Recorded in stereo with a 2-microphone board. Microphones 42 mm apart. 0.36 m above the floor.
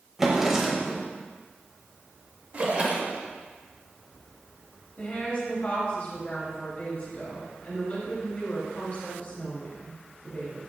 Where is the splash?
35° right (ahead or behind), 0.6 m.